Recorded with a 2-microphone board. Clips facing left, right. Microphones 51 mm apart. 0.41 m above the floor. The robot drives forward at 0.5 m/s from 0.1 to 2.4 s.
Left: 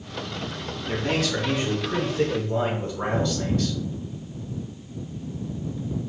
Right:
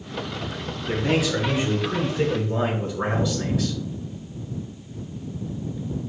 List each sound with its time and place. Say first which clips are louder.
0.9 s a man speaking: right 3 dB; 10° right (ahead or behind), 0.8 m; by 3.8 s 5° right (ahead or behind), 1.3 m